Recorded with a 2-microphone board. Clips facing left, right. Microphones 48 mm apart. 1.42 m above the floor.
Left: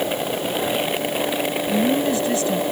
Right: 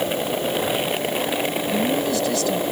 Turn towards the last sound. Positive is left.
turn(degrees=30)  # may be behind; listen again after turning